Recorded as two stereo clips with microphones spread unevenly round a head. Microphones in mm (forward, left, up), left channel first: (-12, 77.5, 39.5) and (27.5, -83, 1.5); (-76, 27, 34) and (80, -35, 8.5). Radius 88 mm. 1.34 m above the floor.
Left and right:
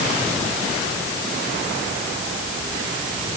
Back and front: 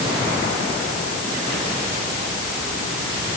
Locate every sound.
Only background noise.